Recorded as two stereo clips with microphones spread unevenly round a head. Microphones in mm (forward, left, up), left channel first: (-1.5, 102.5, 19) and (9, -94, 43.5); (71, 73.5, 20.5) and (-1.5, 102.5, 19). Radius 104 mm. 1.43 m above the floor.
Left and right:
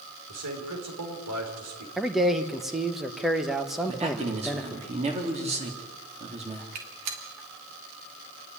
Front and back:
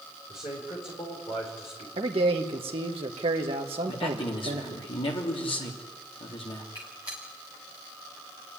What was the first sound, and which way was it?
A man speaking, 80° right.